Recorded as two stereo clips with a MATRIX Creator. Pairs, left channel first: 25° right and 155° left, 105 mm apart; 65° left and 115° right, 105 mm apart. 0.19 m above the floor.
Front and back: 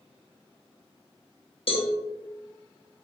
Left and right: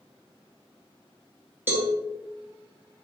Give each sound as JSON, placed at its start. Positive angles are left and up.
{"t": 1.7, "sound": "a cowbell", "azimuth_deg": -45, "distance_m": 0.7}